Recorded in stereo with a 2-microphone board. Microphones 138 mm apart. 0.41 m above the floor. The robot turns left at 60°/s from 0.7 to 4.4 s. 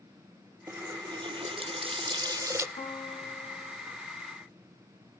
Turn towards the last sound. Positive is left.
turn(degrees=25)